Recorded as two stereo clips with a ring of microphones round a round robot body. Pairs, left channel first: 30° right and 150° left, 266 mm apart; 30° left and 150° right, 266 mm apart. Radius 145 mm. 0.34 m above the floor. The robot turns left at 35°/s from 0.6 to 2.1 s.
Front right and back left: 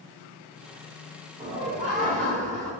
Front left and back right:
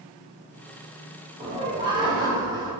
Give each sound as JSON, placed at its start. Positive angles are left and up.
{"t": 1.4, "sound": "laughter", "azimuth_deg": 180, "distance_m": 1.3}